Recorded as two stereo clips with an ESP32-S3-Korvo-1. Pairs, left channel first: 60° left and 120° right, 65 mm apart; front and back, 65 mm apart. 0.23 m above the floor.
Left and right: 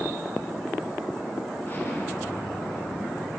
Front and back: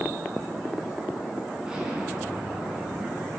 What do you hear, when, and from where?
1.6 s an explosion: 110° left, 2 m